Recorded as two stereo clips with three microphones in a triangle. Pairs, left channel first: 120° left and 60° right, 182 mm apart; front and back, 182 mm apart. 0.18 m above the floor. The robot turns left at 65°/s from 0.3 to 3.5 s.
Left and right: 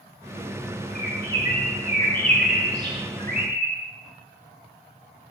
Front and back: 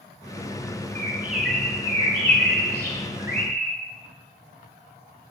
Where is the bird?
125° left, 1.0 m; by 3.8 s 45° right, 1.0 m.